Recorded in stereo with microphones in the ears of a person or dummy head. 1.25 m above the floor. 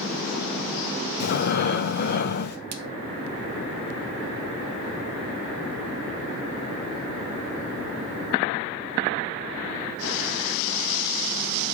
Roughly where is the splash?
Right.